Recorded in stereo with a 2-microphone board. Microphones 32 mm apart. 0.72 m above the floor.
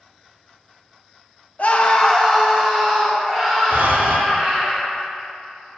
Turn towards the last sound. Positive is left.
turn(degrees=-85)